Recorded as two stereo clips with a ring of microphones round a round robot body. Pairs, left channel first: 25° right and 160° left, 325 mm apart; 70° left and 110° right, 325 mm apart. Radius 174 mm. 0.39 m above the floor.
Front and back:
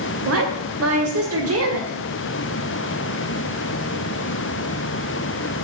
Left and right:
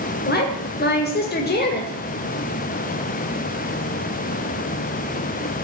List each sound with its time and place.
0.2 s a woman speaking: 120° left, 2.5 m